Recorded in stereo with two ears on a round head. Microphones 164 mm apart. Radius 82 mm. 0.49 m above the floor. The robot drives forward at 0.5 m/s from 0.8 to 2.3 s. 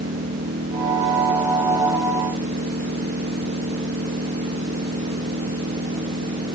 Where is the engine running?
50° right (ahead or behind); by 6.5 s 55° right (ahead or behind).